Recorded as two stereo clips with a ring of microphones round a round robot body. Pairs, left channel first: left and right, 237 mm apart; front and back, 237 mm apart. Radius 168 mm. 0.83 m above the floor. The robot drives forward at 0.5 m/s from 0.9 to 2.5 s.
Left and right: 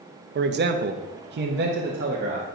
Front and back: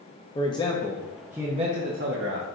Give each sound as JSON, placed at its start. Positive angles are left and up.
{"t": 0.3, "sound": "a man speaking", "azimuth_deg": -70, "distance_m": 0.6}